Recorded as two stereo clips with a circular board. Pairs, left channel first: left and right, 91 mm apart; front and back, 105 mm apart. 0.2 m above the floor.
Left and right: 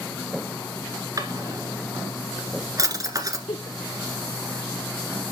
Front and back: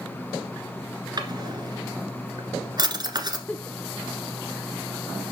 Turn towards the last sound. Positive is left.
turn(degrees=75)